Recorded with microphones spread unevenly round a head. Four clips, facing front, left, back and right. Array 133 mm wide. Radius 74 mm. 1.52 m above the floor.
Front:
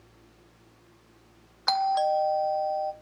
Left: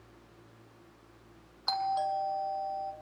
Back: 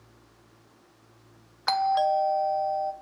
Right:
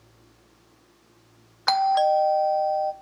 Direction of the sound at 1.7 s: 85° right.